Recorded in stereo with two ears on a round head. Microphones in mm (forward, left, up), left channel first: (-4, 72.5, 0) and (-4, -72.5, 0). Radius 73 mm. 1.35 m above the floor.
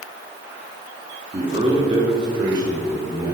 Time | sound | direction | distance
1.3 | a man speaking | 35° right (ahead or behind) | 3 m